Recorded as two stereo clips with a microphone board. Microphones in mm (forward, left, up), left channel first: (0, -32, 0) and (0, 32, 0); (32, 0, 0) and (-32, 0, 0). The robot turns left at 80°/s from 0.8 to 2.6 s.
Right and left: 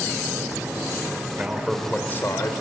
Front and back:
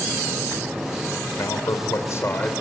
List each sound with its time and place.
1.4 s a man speaking: 30° left, 3 m; by 2.5 s 65° right, 3 m